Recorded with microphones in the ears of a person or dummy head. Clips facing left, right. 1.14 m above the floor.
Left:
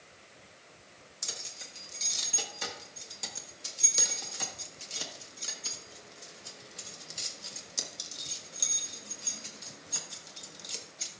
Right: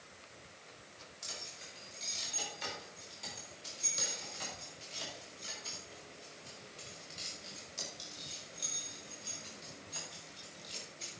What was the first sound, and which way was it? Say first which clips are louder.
Keys jangling: left 3 dB; 70° left (ahead or behind).